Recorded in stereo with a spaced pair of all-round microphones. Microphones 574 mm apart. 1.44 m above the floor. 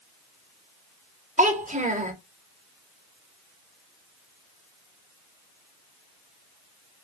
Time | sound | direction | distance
1.4 | a child speaking | 15° right (ahead or behind) | 0.9 m